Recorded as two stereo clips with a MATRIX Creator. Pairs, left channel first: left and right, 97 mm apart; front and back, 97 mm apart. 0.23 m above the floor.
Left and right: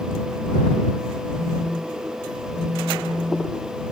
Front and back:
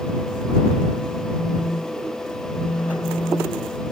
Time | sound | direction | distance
1.4 | a phone buzzing | 20° right | ?